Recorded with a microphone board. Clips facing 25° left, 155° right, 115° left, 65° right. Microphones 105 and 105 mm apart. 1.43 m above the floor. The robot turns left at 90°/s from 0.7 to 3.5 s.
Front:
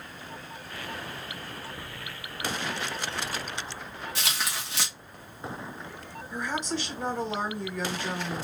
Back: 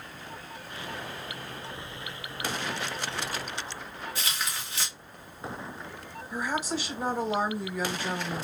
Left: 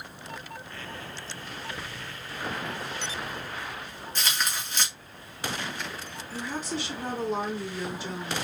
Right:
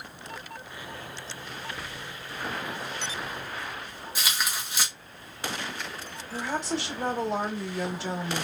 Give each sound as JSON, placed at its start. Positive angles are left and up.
{"t": 4.2, "sound": "tearing paper", "azimuth_deg": 15, "distance_m": 1.3}
{"t": 6.3, "sound": "a woman speaking", "azimuth_deg": -75, "distance_m": 1.5}